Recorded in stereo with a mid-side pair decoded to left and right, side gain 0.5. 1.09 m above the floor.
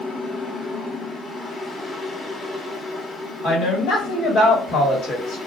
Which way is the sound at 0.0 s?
25° left.